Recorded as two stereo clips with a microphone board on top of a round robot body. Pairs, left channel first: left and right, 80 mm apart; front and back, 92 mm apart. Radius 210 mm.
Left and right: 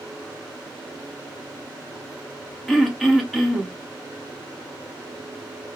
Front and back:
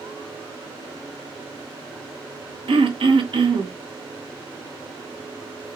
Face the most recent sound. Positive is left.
turn(degrees=180)